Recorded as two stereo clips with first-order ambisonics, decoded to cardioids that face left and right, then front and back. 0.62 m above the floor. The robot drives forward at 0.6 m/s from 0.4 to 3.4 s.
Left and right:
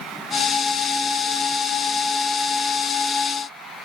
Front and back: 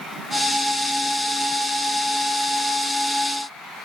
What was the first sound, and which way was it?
Only background noise.